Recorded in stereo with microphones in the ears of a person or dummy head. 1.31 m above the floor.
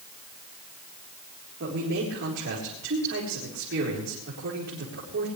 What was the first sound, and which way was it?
A man speaking, 65° right (ahead or behind).